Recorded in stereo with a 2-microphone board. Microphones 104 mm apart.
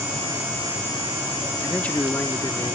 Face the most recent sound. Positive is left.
turn(degrees=25)  # may be behind; listen again after turning